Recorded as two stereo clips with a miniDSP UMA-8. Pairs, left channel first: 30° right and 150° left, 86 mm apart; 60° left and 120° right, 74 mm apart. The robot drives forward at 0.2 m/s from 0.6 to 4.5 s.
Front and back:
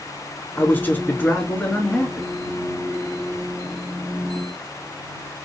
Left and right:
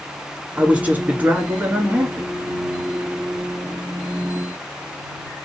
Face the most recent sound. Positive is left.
turn(degrees=-130)